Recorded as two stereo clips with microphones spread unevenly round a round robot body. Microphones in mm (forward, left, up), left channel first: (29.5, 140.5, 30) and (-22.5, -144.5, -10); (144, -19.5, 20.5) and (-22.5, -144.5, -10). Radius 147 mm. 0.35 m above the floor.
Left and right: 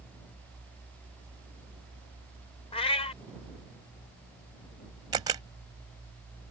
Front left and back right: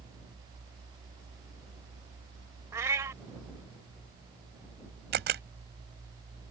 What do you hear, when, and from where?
2.7 s a cat meowing: 150° left
5.1 s a camera shutter: 170° right